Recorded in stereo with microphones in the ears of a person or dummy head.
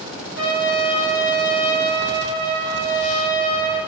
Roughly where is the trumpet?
Centre.